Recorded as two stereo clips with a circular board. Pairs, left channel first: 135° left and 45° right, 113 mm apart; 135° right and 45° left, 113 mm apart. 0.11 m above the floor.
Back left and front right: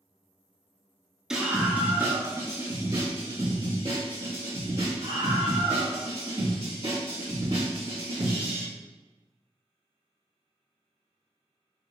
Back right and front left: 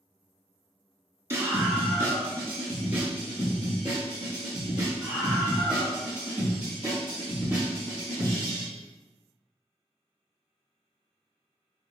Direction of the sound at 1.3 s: 30° left.